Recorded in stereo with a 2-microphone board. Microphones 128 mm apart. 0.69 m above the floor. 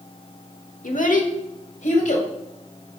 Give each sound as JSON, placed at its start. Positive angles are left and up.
{"t": 0.8, "sound": "a child speaking", "side_deg": 80, "distance_m": 1.0}